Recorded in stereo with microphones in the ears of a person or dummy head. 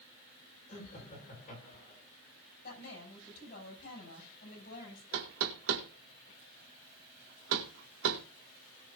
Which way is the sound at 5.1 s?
80° right.